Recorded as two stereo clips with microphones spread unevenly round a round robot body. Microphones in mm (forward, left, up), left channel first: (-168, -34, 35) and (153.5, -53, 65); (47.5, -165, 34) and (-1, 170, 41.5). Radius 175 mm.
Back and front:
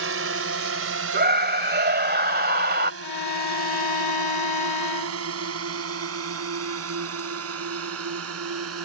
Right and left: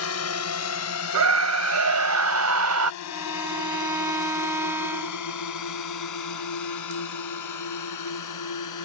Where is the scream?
60° left.